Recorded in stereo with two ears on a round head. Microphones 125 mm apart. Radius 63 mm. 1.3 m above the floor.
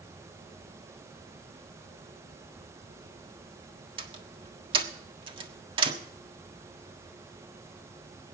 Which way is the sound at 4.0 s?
40° right (ahead or behind).